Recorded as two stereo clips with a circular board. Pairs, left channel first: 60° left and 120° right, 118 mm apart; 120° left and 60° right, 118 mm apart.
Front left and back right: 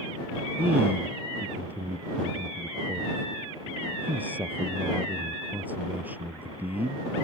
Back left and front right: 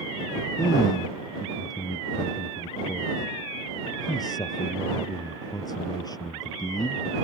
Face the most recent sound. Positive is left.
turn(degrees=165)